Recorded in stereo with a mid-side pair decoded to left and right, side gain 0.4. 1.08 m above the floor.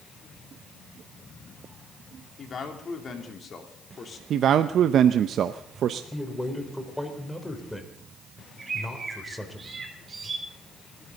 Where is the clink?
I don't hear a clink.